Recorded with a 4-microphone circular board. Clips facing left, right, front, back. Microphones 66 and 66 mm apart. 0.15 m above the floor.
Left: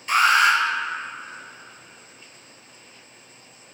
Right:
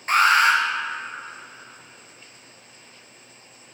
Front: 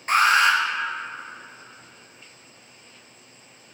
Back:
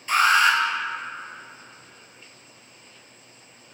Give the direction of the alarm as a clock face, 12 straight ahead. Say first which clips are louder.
Even, even; 1 o'clock.